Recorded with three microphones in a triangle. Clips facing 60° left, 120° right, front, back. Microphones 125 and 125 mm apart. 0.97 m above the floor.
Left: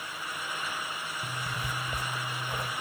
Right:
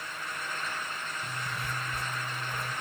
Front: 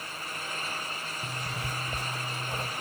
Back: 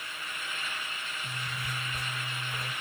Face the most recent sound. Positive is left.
turn(degrees=10)